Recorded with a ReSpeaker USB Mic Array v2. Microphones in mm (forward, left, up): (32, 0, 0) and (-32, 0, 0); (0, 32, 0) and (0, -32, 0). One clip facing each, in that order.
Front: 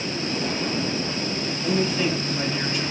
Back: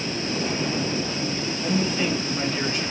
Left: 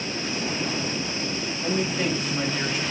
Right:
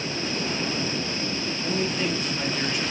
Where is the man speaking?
130° left, 1.9 m.